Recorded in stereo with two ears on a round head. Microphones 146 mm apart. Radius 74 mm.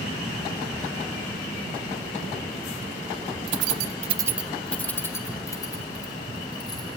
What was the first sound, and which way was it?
Keys jangling, 75° right (ahead or behind).